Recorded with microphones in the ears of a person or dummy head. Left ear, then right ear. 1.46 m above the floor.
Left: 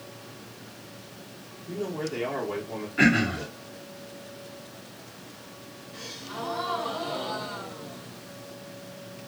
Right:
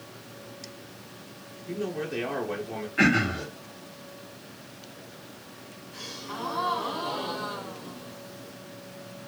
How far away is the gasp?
About 2.0 m.